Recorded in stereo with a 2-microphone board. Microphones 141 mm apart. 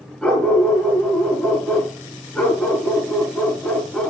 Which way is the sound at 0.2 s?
5° left (ahead or behind).